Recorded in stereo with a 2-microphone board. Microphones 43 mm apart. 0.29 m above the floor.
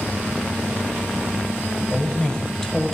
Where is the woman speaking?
30° left (ahead or behind), 1.0 m; by 3.0 s 10° left (ahead or behind), 1.2 m.